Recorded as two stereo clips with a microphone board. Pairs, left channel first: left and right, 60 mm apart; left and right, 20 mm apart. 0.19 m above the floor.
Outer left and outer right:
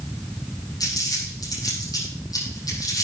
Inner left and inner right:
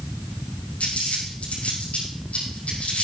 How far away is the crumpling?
About 6 m.